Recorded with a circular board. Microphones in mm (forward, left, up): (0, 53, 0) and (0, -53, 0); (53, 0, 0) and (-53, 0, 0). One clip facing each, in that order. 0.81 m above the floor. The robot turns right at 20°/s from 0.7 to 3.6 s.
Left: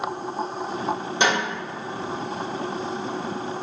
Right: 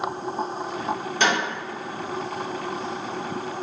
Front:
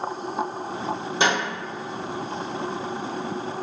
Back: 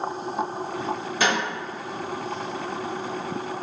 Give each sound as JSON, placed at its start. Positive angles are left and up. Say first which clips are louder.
{"t": 1.2, "sound": "a snare drum", "louder": "left 1 dB, front 1 dB", "azimuth_deg": 40, "distance_m": 1.1}